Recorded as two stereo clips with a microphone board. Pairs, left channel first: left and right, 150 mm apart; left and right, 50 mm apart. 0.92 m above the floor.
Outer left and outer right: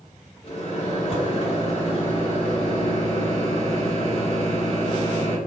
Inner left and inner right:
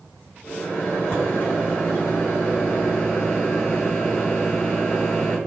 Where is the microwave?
45° left (ahead or behind), 1.1 m.